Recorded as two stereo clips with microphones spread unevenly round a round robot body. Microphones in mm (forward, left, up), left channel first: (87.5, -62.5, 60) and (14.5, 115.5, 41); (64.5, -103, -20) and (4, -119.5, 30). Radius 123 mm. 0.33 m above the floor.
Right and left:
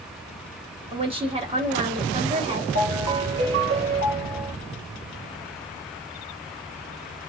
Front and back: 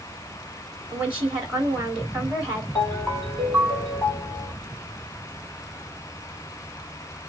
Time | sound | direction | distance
0.9 | a woman speaking | 75° left | 1.9 m
2.8 | a ringtone | 100° left | 3.5 m